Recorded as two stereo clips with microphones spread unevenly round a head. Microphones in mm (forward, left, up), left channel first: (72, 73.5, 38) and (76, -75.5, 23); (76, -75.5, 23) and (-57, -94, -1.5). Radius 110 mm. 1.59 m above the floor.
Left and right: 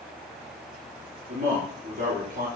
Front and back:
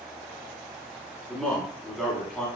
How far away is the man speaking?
About 4.5 m.